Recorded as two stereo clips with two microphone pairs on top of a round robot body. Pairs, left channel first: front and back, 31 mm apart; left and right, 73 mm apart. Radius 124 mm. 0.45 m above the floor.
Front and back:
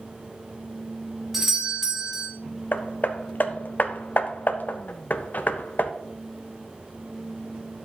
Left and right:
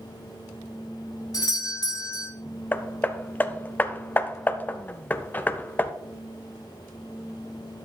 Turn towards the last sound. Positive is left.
turn(degrees=25)